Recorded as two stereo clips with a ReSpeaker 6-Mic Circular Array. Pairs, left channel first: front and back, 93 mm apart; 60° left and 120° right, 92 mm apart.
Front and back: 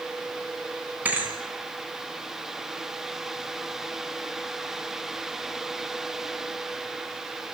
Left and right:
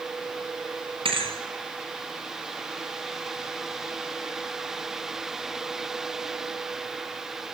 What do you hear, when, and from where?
1.1 s a thud: 110° right, 3 m